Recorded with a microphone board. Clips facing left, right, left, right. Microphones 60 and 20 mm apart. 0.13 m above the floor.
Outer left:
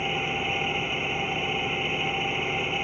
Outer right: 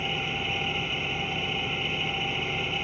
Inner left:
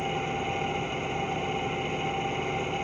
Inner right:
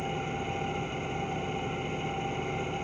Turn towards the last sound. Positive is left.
turn(degrees=20)  # may be behind; listen again after turning